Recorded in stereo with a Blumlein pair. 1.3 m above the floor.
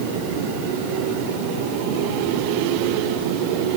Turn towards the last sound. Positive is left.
No sound to turn to.